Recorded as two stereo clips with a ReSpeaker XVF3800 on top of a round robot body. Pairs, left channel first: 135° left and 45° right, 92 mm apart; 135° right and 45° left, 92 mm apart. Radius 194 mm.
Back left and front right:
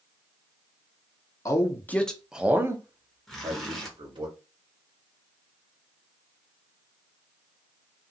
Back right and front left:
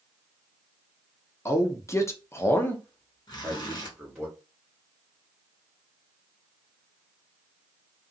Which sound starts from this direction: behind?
A man speaking, at 1.4 s.